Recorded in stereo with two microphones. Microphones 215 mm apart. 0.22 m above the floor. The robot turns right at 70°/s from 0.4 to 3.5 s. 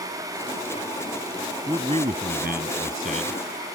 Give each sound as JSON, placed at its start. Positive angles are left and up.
{"t": 1.7, "sound": "a man speaking", "azimuth_deg": -155}